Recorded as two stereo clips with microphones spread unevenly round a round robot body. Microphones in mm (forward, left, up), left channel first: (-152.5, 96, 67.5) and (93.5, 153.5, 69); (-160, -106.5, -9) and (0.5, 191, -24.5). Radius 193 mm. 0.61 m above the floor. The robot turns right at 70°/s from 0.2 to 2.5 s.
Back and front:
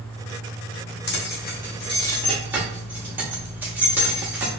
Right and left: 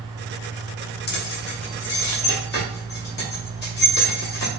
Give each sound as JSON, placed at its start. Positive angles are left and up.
{"t": 1.1, "sound": "keys jangling", "azimuth_deg": -165, "distance_m": 0.7}